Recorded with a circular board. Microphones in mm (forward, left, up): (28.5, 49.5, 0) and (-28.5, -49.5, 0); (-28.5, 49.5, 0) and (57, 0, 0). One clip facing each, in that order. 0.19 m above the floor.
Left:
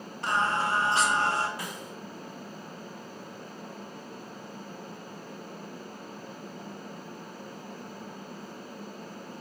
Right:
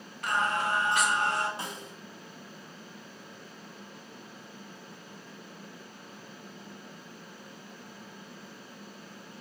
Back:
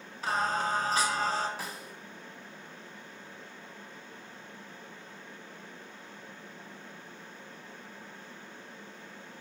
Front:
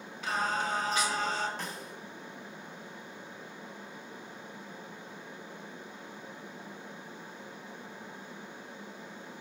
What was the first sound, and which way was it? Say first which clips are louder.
Singing: left 2 dB, back 2 dB; 110° left.